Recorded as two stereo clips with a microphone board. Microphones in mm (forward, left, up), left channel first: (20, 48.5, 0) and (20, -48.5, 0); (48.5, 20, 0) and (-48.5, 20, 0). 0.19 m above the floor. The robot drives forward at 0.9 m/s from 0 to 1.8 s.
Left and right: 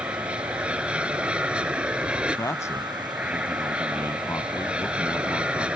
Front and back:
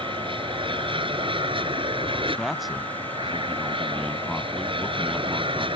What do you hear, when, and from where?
0.0 s an aircraft: 170° right
2.4 s a man speaking: 90° left